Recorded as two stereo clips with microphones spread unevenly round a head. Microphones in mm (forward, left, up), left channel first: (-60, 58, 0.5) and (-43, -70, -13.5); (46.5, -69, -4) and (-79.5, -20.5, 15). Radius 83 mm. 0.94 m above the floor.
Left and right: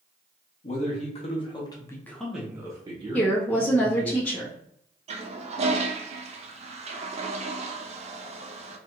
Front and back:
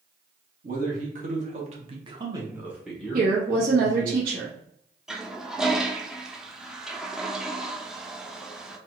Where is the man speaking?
125° left, 1.3 m; by 4.1 s 85° right, 1.4 m.